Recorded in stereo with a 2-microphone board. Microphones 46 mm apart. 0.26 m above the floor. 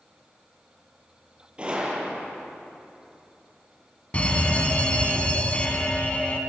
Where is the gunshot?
25° right (ahead or behind), 6.5 m.